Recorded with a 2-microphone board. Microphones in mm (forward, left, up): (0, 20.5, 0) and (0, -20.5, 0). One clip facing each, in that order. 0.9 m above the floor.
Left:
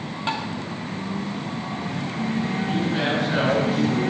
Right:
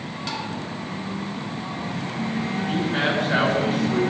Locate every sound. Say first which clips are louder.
0.3 s tapping: left 4 dB; 35° left (ahead or behind), 2 m
2.7 s a man speaking: right 2 dB; 30° right (ahead or behind), 8 m